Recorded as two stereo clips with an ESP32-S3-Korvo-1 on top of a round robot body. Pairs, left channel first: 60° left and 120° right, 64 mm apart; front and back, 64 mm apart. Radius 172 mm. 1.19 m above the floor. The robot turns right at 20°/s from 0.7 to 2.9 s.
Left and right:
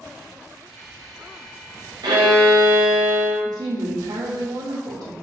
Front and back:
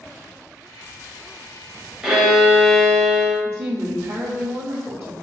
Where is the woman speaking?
125° right, 1.1 m.